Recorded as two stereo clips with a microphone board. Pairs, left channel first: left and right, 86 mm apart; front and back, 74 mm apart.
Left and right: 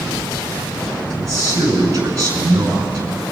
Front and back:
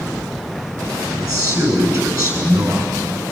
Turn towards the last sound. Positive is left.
turn(degrees=-140)